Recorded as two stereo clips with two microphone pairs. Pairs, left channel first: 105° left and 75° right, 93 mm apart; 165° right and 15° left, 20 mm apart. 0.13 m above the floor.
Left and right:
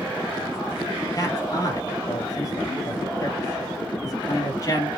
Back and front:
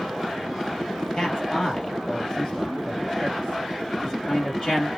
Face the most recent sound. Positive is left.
turn(degrees=150)